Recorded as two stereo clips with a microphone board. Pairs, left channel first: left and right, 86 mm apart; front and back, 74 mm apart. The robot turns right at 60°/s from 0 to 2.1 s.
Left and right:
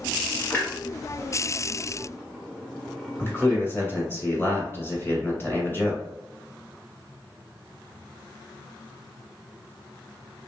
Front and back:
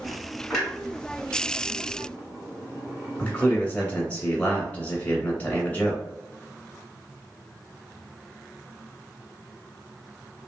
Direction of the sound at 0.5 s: 65° left.